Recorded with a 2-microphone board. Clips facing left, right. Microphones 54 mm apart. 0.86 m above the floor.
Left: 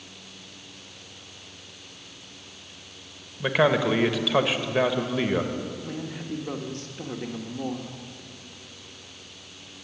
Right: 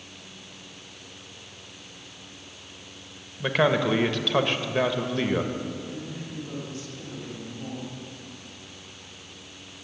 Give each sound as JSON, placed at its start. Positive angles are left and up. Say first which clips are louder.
{"t": 3.4, "sound": "a man speaking", "louder": "left 1 dB", "side_deg": 5, "distance_m": 1.0}
{"t": 5.8, "sound": "a man speaking", "louder": "left 2 dB", "side_deg": 55, "distance_m": 1.3}